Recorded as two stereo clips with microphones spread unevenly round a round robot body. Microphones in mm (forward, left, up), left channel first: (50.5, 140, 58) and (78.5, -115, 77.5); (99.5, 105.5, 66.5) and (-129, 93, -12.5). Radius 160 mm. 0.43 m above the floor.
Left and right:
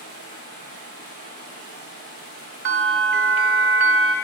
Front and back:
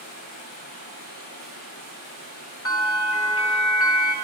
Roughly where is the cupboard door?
I don't hear a cupboard door.